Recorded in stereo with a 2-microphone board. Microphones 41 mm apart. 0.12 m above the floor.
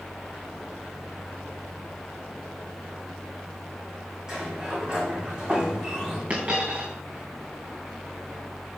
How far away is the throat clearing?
I don't hear throat clearing.